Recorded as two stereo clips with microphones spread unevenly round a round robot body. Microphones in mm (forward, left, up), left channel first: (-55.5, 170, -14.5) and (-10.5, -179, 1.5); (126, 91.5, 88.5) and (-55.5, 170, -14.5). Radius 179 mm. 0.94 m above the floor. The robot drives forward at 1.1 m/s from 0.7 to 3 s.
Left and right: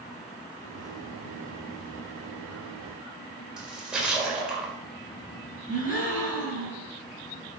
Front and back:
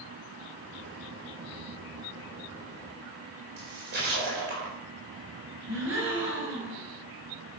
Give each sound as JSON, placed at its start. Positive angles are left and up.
{"t": 3.6, "sound": "a splash", "azimuth_deg": -170, "distance_m": 4.5}
{"t": 5.7, "sound": "a gasp", "azimuth_deg": 165, "distance_m": 7.0}